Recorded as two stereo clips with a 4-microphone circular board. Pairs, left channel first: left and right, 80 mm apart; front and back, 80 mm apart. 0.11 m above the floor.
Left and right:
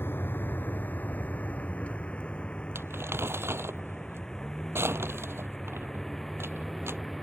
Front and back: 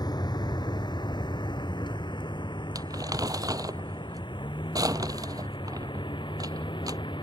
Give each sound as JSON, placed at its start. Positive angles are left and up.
{"t": 0.0, "sound": "a vehicle", "azimuth_deg": 30}
{"t": 2.8, "sound": "crumpling", "azimuth_deg": -145}